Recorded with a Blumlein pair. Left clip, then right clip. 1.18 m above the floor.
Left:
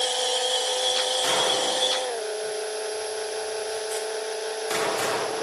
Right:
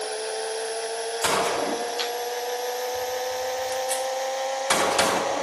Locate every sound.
1.2 s a gunshot: 45° right, 2.5 m